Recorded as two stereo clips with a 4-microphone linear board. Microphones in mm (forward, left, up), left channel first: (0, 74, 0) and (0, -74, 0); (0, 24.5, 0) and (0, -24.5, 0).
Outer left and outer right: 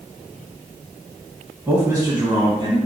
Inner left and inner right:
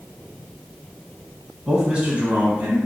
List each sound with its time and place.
1.7 s a man speaking: 15° right (ahead or behind), 1.5 m; by 2.8 s 35° right (ahead or behind), 1.9 m